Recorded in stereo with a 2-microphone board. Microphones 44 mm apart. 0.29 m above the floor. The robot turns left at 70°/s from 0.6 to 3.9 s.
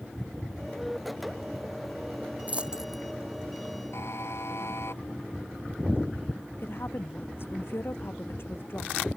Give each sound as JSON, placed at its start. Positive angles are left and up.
{"t": 2.5, "sound": "a dropped coin", "side_deg": -35}
{"t": 3.9, "sound": "a buzzer", "side_deg": 75}
{"t": 6.6, "sound": "a woman speaking", "side_deg": 60}